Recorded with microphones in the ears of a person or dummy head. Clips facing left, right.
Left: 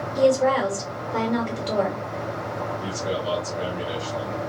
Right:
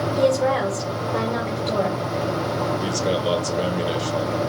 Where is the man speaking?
55° right (ahead or behind), 1.0 m.